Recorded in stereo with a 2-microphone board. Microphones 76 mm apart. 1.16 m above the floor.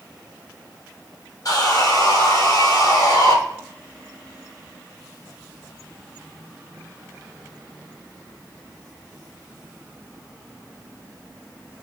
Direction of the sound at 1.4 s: 50° left (ahead or behind).